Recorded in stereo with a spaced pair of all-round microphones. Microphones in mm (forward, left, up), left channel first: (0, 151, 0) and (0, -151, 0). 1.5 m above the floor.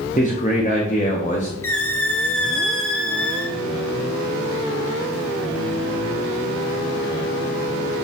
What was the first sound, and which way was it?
A man speaking, 25° left (ahead or behind).